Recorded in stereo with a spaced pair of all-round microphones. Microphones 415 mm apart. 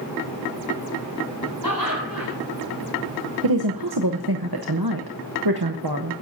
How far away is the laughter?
About 5 m.